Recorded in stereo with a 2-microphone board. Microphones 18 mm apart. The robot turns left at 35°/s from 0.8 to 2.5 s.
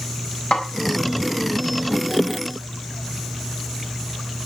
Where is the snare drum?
70° left (ahead or behind), 4 m.